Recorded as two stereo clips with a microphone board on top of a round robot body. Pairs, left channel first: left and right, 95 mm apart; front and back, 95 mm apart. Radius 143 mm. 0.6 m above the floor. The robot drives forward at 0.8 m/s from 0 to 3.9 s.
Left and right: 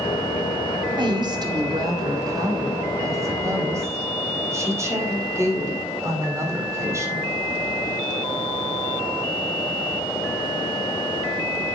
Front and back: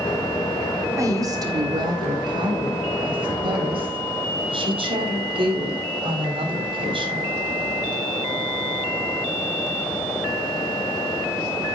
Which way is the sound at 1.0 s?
125° right.